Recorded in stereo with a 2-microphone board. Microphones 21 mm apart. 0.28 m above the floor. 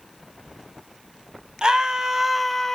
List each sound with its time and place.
1.6 s a scream: 40° right (ahead or behind), 1.5 m; by 2.8 s 20° left (ahead or behind), 1.1 m